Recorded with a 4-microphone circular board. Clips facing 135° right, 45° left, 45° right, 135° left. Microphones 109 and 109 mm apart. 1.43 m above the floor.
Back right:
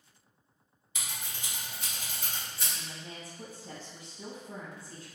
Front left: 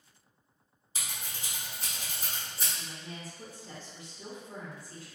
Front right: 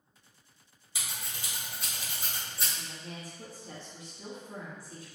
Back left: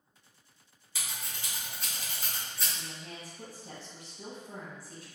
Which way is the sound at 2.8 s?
160° left.